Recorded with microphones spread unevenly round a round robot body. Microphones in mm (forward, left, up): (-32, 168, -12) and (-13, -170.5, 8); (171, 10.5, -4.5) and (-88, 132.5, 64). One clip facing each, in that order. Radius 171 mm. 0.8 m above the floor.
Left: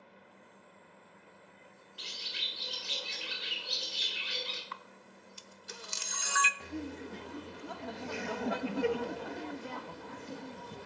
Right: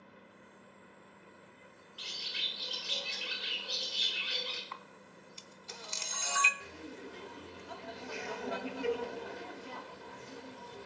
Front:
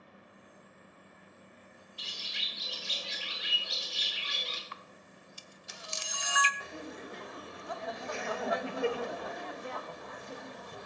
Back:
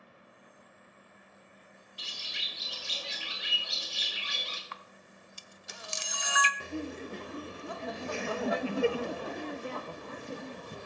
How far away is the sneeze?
No sneeze in this recording.